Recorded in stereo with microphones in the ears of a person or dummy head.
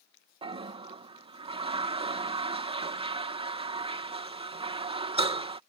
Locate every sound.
0.4 s a toilet flushing: 30° right (ahead or behind)